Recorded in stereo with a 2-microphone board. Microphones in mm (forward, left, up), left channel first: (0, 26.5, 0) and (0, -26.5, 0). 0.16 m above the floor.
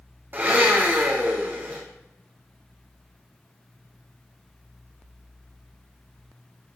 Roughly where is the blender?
Right.